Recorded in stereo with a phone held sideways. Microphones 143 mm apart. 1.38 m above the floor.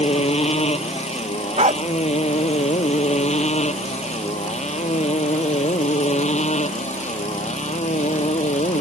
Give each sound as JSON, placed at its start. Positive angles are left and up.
{"t": 0.0, "sound": "a motorcycle", "side_deg": 45}
{"t": 1.6, "sound": "a dog barking", "side_deg": -55}